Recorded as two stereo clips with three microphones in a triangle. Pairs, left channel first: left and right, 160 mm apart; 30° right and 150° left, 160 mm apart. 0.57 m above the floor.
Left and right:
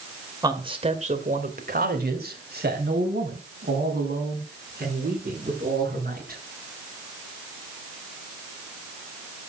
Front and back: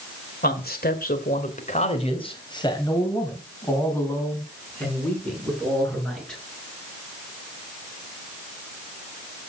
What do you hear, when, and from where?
0.4 s a man speaking: 25° right, 2.5 m; by 6.4 s 115° right, 8.5 m